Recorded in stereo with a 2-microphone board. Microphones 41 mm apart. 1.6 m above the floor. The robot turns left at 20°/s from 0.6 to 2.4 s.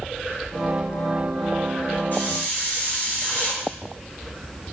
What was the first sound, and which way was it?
A hiss, 55° left (ahead or behind).